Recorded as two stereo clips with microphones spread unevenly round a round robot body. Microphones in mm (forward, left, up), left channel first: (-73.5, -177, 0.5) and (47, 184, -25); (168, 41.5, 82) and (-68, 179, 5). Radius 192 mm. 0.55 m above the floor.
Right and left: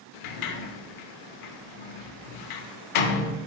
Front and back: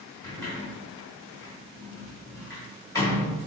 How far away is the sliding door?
About 0.7 m.